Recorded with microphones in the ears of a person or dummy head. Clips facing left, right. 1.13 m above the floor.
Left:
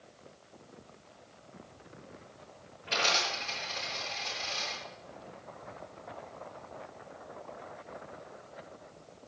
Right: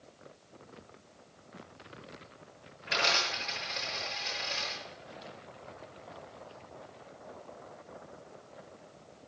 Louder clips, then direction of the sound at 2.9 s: Even; 30° right (ahead or behind).